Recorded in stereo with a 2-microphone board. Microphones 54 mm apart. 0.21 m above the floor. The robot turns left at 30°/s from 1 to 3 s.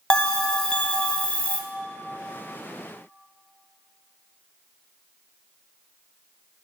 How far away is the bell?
About 1.1 m.